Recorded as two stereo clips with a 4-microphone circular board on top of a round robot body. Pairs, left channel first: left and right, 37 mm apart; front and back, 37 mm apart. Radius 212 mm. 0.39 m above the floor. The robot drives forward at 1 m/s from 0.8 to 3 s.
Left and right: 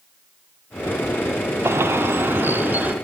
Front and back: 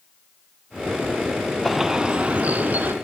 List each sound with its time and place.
1.6 s a bird: 90° right, 1.2 m; by 2.9 s 135° right, 1.7 m